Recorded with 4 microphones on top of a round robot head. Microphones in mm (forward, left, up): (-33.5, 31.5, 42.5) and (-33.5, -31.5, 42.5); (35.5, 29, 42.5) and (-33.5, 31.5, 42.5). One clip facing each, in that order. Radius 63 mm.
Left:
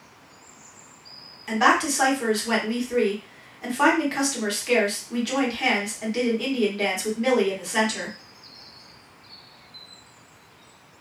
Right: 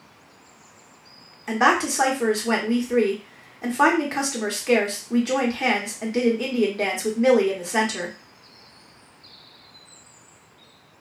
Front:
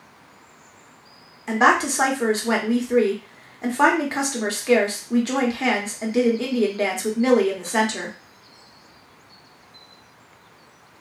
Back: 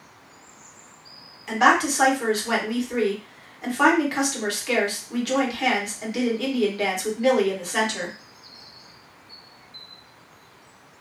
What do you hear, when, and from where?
1.5 s a woman speaking: 40° right, 0.9 m